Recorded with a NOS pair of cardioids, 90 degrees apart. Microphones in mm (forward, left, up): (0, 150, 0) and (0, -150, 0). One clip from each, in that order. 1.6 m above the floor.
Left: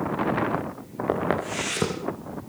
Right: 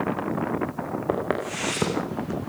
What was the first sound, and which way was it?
Footsteps, 5° left.